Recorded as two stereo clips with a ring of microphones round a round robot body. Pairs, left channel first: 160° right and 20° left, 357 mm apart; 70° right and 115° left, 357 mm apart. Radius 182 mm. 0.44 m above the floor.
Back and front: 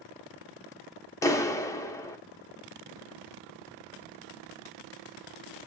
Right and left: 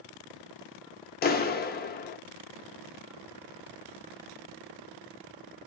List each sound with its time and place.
1.2 s a clap: 85° right, 0.5 m